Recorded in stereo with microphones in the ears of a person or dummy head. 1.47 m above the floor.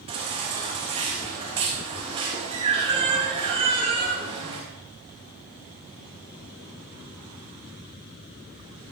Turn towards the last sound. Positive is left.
turn(degrees=-35)  # may be behind; listen again after turning